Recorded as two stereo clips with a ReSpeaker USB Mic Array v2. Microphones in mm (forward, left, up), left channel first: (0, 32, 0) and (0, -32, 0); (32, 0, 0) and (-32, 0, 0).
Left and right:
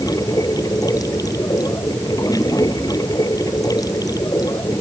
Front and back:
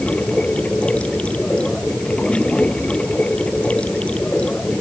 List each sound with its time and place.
0.0 s running water: 70° left